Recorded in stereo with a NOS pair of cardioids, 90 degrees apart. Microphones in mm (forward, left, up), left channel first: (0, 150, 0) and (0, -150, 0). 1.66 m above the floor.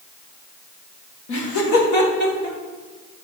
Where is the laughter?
70° left, 1.6 m; by 2.6 s 65° left, 3 m.